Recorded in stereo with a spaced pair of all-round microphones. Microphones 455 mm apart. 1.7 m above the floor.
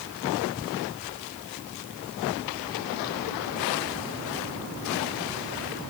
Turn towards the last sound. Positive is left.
No sound to turn to.